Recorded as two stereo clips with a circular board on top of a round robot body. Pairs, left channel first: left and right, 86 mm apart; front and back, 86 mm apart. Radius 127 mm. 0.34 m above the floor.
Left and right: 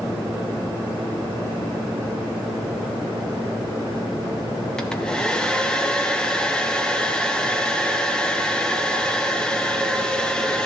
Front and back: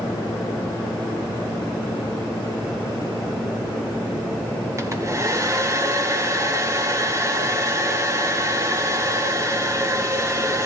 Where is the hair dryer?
165° left, 1.7 m.